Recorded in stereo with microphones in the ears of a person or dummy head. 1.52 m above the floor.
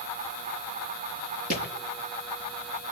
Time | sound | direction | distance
1.5 | a thud | 55° right (ahead or behind) | 6.5 m